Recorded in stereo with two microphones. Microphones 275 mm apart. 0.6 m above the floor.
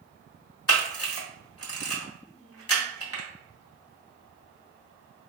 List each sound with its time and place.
0.7 s a camera shutter: 55° left (ahead or behind), 0.8 m